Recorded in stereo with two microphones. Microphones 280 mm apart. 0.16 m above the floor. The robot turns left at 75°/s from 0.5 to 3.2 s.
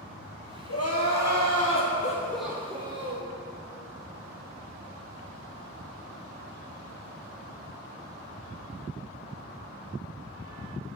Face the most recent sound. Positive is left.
turn(degrees=-60)